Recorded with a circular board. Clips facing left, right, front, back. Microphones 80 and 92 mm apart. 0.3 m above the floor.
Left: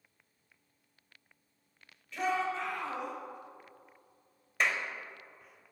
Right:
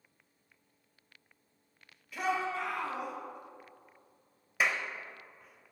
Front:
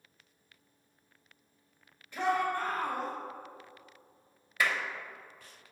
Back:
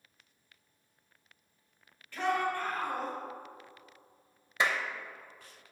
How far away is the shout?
About 1.3 m.